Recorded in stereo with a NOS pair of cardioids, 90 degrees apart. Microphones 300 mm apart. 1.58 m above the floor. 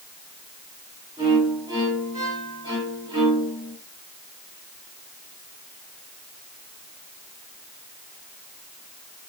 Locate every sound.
1.2 s a violin: 10° right, 6.5 m